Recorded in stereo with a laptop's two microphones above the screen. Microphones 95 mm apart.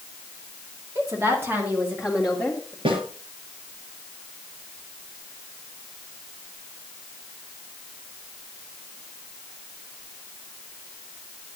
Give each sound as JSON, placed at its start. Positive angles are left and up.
{"t": 0.9, "sound": "a woman speaking", "side_deg": -35, "distance_m": 2.5}
{"t": 2.9, "sound": "a snare drum", "side_deg": -70, "distance_m": 7.5}